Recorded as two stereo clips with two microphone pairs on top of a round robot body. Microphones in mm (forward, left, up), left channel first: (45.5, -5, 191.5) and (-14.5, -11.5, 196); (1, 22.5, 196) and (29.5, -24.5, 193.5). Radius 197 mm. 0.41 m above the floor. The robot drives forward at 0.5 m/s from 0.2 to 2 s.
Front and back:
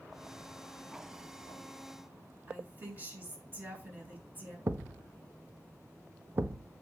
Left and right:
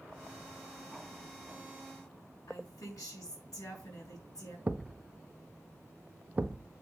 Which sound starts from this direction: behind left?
A woman speaking, at 2.5 s.